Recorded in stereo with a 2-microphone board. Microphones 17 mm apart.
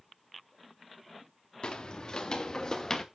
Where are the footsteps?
55° left (ahead or behind), 1.6 m; by 3.0 s 30° left (ahead or behind), 1.4 m.